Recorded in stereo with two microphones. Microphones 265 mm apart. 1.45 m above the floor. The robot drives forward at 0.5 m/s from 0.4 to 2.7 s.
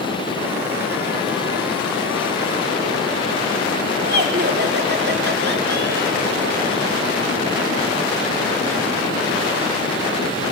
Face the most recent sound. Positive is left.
turn(degrees=-40)  # may be behind; listen again after turning